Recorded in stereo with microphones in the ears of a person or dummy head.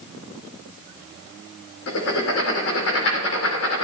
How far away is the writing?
About 3 m.